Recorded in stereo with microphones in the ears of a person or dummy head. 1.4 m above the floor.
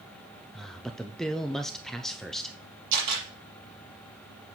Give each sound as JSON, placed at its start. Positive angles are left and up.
{"t": 0.5, "sound": "a man speaking", "side_deg": 5, "distance_m": 0.6}
{"t": 2.9, "sound": "a camera shutter", "side_deg": -55, "distance_m": 6.5}